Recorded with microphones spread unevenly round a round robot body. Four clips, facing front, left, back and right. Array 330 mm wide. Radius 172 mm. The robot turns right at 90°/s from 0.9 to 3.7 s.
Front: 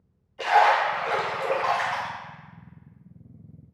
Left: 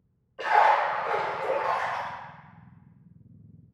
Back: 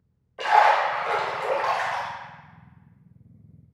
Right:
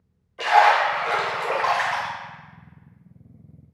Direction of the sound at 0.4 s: Straight behind.